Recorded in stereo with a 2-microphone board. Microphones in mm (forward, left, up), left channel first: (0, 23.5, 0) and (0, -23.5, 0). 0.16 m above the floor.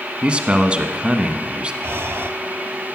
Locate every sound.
0.2 s a man speaking: 25° right (ahead or behind), 1.1 m
1.8 s breathing: 65° right (ahead or behind), 1.1 m